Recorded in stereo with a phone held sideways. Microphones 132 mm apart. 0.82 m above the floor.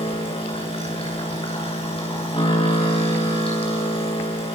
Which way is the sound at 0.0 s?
45° left (ahead or behind).